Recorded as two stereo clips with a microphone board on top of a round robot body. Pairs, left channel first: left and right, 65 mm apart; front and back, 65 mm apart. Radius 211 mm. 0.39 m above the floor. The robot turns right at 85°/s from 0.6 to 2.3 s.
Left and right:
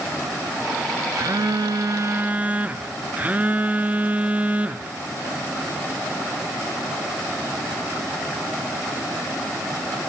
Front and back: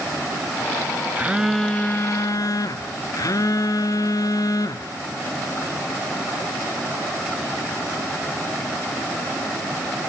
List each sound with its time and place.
1.2 s a phone buzzing: 120° right, 0.7 m; by 4.9 s 25° right, 0.7 m